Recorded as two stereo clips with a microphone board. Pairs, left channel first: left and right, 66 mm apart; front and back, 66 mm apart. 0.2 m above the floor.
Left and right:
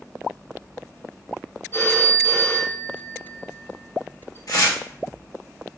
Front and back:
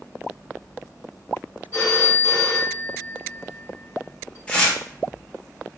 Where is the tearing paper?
70° left, 1.8 m.